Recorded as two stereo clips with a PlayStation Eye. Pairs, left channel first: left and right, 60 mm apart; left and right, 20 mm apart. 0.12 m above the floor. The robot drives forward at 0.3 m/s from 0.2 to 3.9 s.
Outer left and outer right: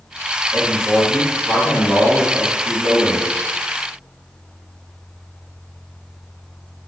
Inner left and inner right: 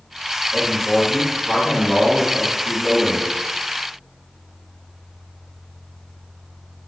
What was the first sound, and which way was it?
A man speaking, 30° right (ahead or behind).